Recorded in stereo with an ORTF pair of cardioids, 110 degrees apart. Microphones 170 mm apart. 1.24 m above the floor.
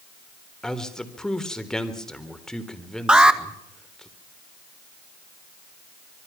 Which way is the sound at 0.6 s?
5° left.